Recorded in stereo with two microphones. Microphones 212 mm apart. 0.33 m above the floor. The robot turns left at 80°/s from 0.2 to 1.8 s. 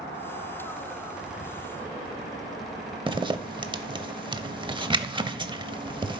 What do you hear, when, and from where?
3.1 s a zipper: 25° right (ahead or behind), 0.7 m